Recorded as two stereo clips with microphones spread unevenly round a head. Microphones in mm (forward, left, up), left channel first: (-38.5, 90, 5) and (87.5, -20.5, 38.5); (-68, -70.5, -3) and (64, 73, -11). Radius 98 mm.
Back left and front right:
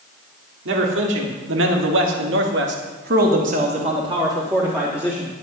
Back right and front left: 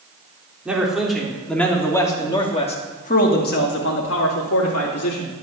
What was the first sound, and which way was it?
A man speaking, 35° right.